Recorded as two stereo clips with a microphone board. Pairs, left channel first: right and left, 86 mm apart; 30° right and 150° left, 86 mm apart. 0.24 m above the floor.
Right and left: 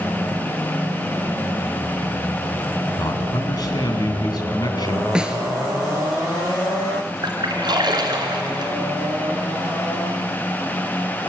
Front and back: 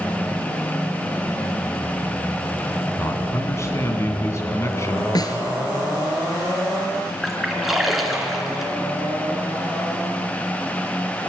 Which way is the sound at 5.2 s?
10° left.